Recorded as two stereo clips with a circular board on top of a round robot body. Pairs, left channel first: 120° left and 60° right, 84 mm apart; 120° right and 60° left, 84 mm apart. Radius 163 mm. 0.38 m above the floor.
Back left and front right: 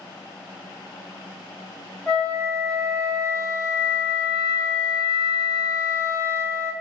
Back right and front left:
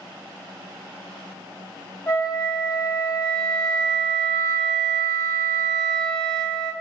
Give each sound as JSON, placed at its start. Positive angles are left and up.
{"t": 2.1, "sound": "a flute", "azimuth_deg": -155, "distance_m": 1.3}